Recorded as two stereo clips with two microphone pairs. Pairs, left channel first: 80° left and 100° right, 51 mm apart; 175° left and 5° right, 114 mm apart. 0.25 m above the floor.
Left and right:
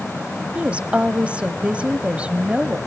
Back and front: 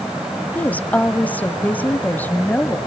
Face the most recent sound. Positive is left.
turn(degrees=-125)